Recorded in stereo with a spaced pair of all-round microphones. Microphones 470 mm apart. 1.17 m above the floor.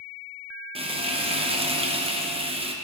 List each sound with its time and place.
0.8 s frying: 10° right (ahead or behind), 0.7 m